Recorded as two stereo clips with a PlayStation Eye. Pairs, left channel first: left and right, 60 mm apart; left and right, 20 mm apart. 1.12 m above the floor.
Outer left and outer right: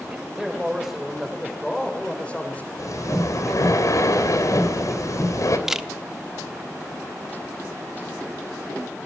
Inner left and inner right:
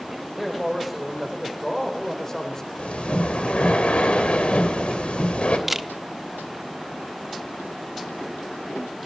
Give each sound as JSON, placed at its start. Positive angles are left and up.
{"t": 0.1, "sound": "a man speaking", "side_deg": -15, "distance_m": 5.5}
{"t": 2.8, "sound": "breathing", "side_deg": 60, "distance_m": 3.0}
{"t": 5.7, "sound": "a camera shutter", "side_deg": -10, "distance_m": 1.0}